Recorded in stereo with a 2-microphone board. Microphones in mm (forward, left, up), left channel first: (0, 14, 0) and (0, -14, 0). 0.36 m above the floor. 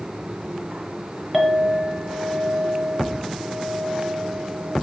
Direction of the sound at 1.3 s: 5° right (ahead or behind).